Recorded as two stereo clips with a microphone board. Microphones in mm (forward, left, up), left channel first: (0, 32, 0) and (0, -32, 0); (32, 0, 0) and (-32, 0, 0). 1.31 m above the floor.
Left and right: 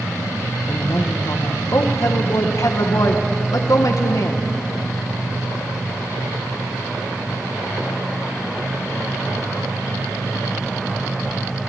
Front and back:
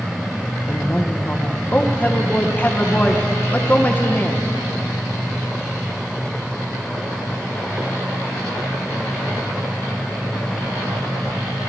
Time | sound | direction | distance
0.7 | a woman speaking | 60° left | 1.4 m